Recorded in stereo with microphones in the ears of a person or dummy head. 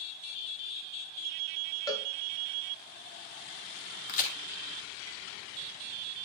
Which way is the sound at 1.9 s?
20° left (ahead or behind).